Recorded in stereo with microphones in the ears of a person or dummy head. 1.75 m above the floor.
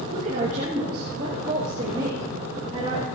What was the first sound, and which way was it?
A woman speaking, 40° right (ahead or behind).